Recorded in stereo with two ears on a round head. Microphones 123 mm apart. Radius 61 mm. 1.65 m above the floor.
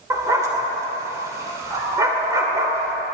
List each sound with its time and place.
0.1 s a dog barking: 25° right (ahead or behind), 1.8 m